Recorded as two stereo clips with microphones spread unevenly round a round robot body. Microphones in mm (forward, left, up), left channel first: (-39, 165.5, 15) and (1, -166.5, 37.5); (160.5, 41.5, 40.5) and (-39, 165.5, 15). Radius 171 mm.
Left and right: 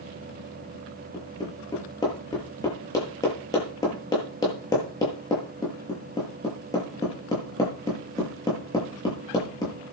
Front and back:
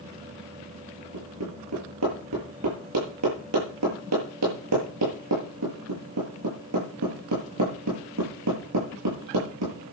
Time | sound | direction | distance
1.1 | hammering | 175° left | 8.5 m